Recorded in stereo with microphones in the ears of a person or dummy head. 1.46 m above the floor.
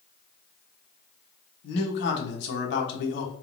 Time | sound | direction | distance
1.6 | a man speaking | 75° left (ahead or behind) | 1.0 m